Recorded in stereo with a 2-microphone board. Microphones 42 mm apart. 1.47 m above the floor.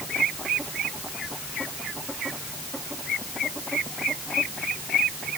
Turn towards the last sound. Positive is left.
No sound to turn to.